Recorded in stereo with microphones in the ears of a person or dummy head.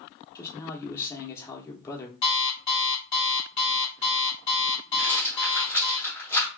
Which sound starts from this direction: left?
An alarm clock, at 2.2 s.